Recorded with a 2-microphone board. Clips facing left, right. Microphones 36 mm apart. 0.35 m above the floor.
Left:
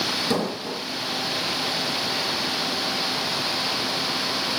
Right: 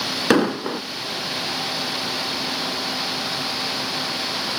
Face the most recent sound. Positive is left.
turn(degrees=-75)  # may be behind; listen again after turning